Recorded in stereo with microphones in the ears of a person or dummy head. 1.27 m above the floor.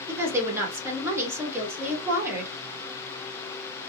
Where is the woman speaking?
10° right (ahead or behind), 1.1 m.